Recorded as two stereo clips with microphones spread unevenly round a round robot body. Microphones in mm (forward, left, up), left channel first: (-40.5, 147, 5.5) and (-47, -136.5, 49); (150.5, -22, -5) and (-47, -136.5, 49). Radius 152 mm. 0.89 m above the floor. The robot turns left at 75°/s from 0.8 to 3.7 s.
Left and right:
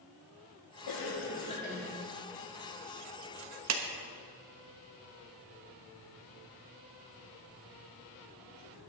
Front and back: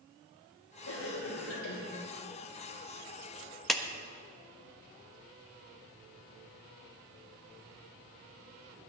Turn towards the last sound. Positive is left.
turn(degrees=-50)